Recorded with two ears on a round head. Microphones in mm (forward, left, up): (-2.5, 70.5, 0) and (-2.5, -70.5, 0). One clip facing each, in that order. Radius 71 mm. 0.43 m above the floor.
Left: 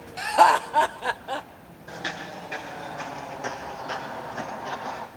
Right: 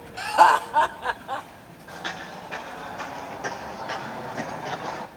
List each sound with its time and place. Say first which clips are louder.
0.2 s laughter: right 1 dB; 5° left (ahead or behind), 0.9 m; by 1.5 s 25° left (ahead or behind), 1.5 m
1.9 s footsteps: left 1 dB; 20° left (ahead or behind), 6.5 m; by 5.1 s 30° right (ahead or behind), 5 m